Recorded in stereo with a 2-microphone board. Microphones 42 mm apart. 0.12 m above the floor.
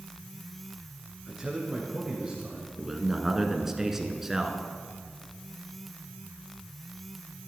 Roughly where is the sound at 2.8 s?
Centre.